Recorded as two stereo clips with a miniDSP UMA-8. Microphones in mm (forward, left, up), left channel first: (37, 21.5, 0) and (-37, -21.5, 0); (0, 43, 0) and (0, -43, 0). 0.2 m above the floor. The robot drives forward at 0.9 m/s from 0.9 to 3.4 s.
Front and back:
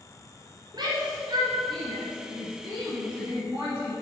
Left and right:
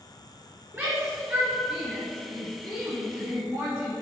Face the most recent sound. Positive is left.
turn(degrees=-160)